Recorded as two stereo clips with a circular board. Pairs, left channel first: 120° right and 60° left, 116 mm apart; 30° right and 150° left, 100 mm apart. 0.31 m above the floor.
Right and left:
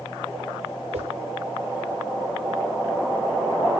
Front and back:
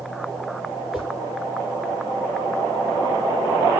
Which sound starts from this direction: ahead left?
A whoosh, at 0.9 s.